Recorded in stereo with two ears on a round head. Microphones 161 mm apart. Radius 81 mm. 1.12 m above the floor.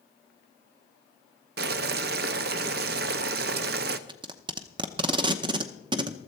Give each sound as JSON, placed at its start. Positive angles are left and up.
{"t": 1.6, "sound": "boiling", "side_deg": -60, "distance_m": 0.7}
{"t": 4.1, "sound": "tape being pulled", "side_deg": -30, "distance_m": 0.8}